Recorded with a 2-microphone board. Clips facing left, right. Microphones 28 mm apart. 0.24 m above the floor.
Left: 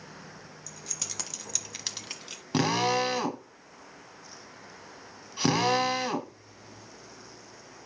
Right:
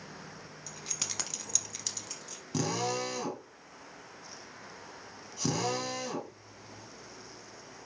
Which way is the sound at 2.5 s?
50° left (ahead or behind).